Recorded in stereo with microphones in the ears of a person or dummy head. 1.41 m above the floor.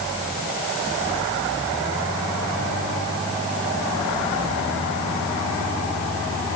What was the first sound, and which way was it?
Only background noise.